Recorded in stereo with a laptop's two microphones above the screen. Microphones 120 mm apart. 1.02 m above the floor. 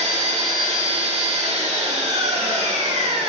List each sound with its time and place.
0.0 s an engine running: 70° right (ahead or behind), 1.5 m